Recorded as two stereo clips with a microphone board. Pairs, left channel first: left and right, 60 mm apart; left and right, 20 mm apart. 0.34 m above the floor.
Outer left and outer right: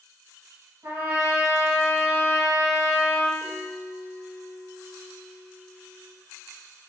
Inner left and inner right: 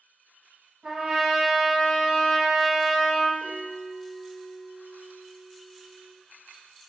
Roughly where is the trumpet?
Right.